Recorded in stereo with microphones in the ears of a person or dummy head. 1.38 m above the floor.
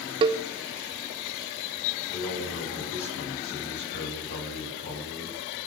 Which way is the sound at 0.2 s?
30° right (ahead or behind).